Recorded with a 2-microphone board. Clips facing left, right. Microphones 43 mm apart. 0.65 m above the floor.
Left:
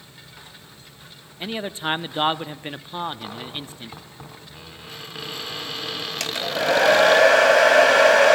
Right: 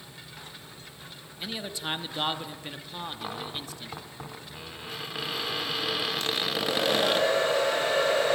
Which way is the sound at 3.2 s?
5° right (ahead or behind).